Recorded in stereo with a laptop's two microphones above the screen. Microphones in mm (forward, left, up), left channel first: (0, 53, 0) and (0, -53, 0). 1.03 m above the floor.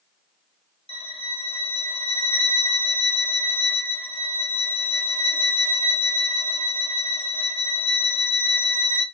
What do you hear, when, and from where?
0.9 s a violin: 65° left (ahead or behind), 0.9 m